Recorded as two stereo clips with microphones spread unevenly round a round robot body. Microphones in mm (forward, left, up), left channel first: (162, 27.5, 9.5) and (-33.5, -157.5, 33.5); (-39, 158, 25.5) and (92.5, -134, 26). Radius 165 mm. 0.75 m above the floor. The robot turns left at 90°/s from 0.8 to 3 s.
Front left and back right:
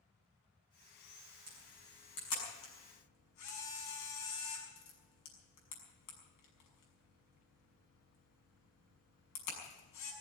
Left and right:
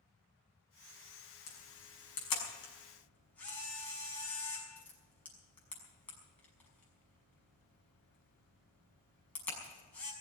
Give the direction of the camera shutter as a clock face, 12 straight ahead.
6 o'clock.